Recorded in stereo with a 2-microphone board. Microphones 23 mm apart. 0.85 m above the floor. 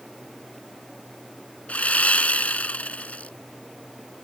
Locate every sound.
1.7 s sawing: 80° left